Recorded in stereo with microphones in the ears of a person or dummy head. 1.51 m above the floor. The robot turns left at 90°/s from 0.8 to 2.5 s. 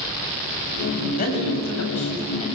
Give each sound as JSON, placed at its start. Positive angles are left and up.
{"t": 1.2, "sound": "a man speaking", "azimuth_deg": 140, "distance_m": 8.0}